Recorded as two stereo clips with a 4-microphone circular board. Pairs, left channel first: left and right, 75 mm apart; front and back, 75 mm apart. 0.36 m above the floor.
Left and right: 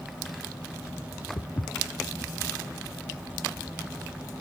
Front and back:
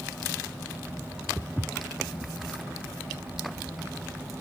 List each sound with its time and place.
1.4 s footsteps: 95° left, 0.5 m; by 4.4 s straight ahead, 3.5 m